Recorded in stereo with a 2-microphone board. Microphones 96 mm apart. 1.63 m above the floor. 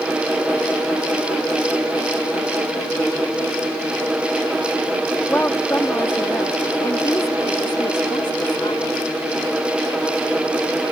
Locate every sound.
5.3 s a woman speaking: 20° left (ahead or behind); by 9.0 s 55° left (ahead or behind)